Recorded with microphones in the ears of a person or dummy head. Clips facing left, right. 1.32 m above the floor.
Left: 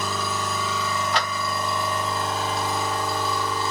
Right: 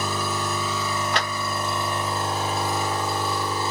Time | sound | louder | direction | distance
0.0 | a machine running | right 1 dB | 10° right (ahead or behind) | 1.6 m
1.1 | a clap | left 1 dB | 45° right (ahead or behind) | 1.3 m